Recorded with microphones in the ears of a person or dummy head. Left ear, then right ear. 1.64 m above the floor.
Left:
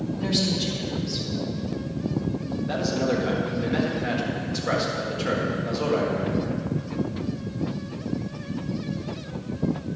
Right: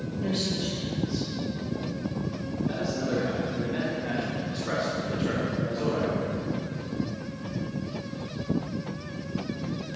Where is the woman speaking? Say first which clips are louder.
Left 4 dB; 25° left (ahead or behind), 3 m.